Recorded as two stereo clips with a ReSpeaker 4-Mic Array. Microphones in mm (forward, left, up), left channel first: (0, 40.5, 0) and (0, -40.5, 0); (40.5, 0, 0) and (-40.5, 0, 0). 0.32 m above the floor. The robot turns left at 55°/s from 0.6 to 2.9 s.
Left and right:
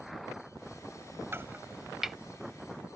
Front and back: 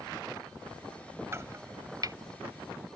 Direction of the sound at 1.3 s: 135° right.